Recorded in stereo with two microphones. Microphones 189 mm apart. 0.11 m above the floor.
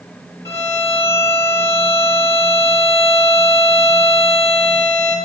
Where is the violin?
15° left (ahead or behind), 2.5 m.